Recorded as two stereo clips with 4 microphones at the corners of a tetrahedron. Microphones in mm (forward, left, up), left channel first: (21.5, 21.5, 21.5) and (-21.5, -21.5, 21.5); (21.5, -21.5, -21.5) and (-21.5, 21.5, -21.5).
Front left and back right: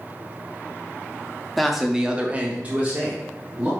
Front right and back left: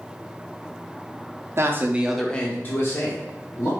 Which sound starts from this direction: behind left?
A man speaking, at 1.6 s.